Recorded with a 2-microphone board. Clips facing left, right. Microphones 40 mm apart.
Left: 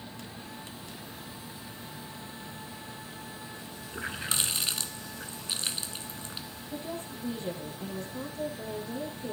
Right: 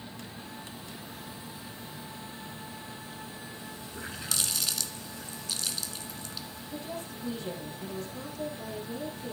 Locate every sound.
3.9 s a running tap: 35° left (ahead or behind), 1.0 m
6.7 s a woman speaking: 40° left (ahead or behind), 6.5 m